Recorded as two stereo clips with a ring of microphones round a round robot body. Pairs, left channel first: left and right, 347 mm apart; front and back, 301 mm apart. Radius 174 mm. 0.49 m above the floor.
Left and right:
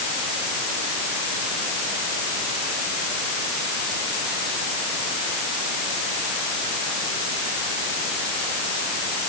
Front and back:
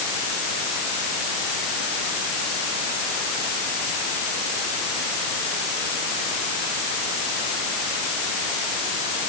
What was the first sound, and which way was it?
Only background noise.